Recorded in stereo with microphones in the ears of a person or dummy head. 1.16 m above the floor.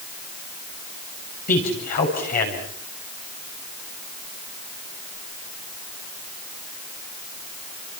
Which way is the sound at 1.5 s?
45° left (ahead or behind).